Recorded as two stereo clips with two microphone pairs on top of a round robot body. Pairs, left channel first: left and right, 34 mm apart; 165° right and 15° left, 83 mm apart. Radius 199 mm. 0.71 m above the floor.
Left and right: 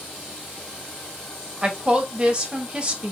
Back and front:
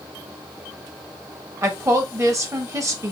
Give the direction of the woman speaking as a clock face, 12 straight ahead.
1 o'clock.